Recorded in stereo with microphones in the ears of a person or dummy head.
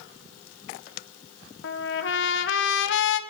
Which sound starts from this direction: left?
A trumpet, at 1.6 s.